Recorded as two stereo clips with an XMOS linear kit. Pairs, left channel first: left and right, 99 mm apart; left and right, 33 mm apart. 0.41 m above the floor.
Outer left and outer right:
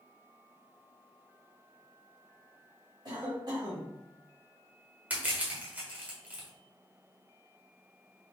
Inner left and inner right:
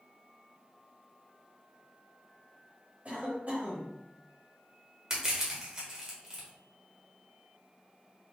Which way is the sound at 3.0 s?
50° right (ahead or behind).